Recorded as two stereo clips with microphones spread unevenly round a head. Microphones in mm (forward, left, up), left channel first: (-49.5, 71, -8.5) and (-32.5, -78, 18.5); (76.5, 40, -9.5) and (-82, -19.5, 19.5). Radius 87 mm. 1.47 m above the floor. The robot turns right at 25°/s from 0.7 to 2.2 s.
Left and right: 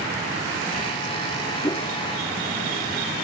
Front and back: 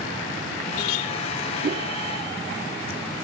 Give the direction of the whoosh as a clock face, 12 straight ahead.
6 o'clock.